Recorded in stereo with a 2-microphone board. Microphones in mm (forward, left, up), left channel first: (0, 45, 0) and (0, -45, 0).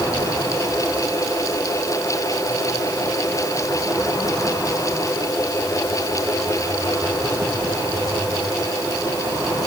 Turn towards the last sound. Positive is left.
No sound to turn to.